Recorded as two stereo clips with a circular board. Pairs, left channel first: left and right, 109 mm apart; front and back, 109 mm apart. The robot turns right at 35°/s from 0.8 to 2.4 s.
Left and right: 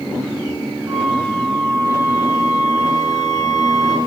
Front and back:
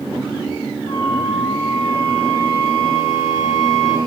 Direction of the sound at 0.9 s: 15° right.